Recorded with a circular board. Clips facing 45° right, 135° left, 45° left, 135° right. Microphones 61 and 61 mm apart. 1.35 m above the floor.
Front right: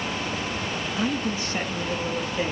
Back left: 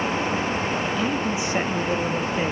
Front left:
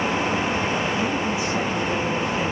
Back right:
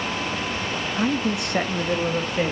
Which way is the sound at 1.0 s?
120° right.